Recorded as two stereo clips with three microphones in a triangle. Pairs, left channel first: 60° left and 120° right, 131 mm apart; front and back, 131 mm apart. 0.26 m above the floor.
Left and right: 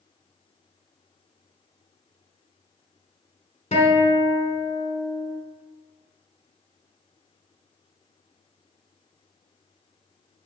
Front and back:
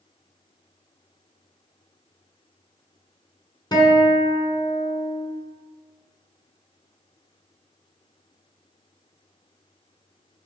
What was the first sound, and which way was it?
A guitar, 55° left.